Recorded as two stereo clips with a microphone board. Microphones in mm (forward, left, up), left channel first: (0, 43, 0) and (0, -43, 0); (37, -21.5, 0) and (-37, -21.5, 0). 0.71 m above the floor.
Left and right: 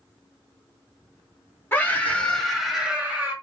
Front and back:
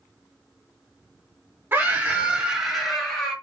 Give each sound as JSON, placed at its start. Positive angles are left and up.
{"t": 1.7, "sound": "a scream", "azimuth_deg": 140, "distance_m": 1.3}